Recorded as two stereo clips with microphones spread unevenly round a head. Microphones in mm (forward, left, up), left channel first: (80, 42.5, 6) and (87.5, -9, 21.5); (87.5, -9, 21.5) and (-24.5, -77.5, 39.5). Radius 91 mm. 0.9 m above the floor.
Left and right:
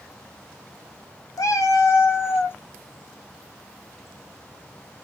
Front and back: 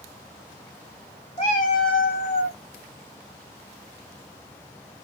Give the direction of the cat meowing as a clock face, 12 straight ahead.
9 o'clock.